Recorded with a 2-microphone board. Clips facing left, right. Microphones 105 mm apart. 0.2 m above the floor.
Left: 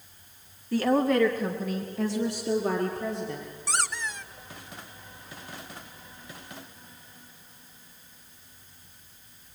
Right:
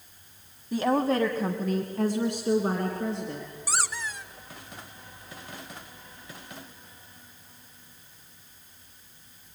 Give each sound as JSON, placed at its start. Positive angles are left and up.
{"t": 0.7, "sound": "a woman speaking", "side_deg": -20, "distance_m": 1.5}
{"t": 3.7, "sound": "a squeak", "side_deg": -5, "distance_m": 1.0}